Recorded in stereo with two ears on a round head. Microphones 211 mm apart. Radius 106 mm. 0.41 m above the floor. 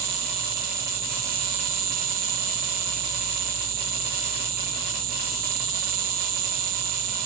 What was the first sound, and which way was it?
An insect, 40° right (ahead or behind).